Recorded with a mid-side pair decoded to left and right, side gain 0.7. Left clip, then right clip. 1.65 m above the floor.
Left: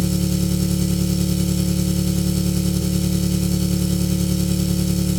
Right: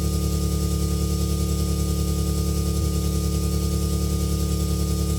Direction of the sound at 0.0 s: 45° left.